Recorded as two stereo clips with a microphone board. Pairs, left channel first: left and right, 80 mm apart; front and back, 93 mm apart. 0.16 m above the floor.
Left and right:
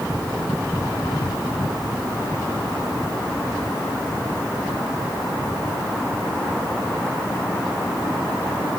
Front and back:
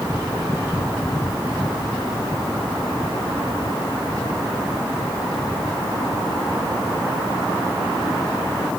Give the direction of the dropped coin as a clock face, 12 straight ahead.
No dropped coin in this recording.